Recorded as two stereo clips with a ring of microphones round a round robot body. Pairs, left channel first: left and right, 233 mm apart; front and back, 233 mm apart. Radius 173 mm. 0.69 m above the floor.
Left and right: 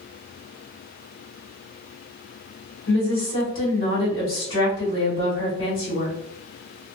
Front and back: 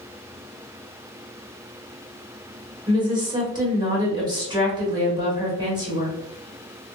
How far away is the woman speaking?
About 1.8 m.